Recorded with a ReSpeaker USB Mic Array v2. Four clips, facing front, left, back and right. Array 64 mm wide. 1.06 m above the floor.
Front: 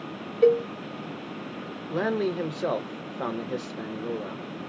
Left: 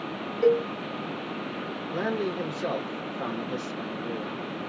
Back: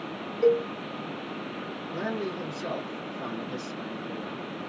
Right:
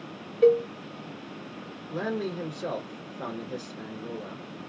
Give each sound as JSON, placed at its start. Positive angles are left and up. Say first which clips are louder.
{"t": 0.4, "sound": "a cowbell", "louder": "right 2 dB, front 3 dB", "azimuth_deg": -35, "distance_m": 0.6}
{"t": 1.9, "sound": "a man speaking", "louder": "left 2 dB, front 6 dB", "azimuth_deg": 10, "distance_m": 1.1}